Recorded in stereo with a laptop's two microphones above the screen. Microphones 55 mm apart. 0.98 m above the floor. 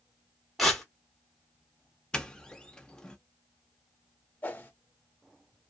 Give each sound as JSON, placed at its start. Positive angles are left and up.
{"t": 0.6, "sound": "tearing paper", "side_deg": 0, "distance_m": 1.4}
{"t": 2.1, "sound": "a doorbell", "side_deg": 15, "distance_m": 0.6}
{"t": 4.4, "sound": "a whoosh", "side_deg": 30, "distance_m": 0.7}